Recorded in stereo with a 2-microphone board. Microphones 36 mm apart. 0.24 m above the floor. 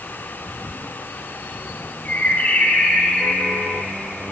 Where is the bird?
40° left (ahead or behind), 1.4 m.